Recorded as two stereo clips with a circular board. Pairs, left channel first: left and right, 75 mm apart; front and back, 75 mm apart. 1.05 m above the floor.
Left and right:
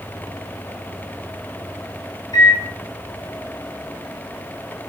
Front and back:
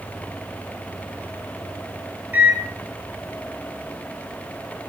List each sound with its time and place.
2.3 s a microwave: 115° left, 0.6 m